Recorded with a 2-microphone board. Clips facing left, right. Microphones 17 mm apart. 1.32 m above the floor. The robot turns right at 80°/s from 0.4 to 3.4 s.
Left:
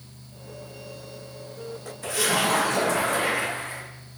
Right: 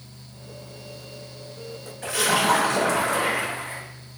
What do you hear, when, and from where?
2.0 s a splash: 95° right, 1.5 m; by 3.8 s 15° left, 1.5 m